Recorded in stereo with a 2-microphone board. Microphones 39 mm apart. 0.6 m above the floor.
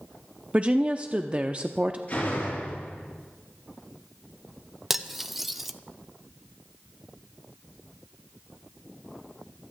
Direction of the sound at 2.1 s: 35° left (ahead or behind).